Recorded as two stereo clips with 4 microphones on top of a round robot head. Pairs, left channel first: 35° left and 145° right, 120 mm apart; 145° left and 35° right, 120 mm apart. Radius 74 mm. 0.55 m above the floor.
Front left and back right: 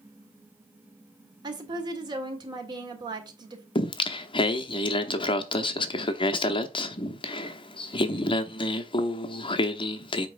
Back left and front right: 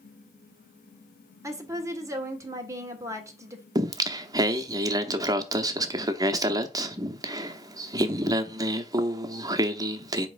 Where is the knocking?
I don't hear knocking.